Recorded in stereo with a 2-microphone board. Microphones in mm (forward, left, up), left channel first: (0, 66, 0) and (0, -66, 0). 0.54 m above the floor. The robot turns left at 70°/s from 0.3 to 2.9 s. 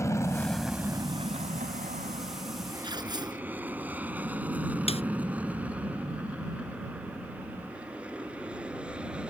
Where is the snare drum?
50° left (ahead or behind).